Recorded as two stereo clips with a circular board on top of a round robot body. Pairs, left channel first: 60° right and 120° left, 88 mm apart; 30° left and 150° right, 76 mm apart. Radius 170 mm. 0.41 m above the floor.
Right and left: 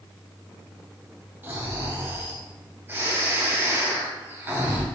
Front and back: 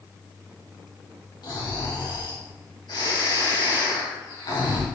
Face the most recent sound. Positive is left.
turn(degrees=55)